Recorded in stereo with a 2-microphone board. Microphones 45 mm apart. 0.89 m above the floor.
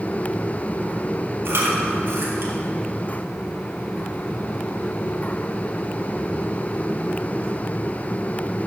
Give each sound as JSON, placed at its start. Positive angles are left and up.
{"t": 1.4, "sound": "chewing", "side_deg": -65, "distance_m": 1.7}